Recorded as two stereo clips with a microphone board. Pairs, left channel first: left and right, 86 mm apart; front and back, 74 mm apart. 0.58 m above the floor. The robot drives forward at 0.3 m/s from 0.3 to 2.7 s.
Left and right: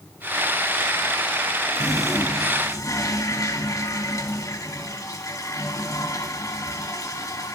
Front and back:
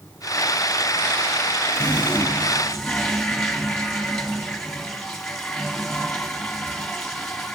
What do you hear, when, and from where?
1.8 s a toilet flushing: 65° left, 1.1 m; by 7.5 s 85° left, 1.1 m